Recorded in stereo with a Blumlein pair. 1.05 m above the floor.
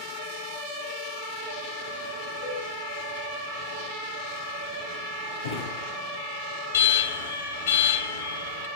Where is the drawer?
65° left, 7.5 m.